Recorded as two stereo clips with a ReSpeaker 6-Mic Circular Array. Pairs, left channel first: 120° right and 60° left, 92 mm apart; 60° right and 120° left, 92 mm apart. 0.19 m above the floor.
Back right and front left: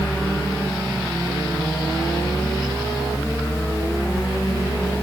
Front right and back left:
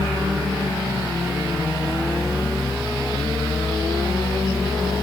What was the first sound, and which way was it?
Only background noise.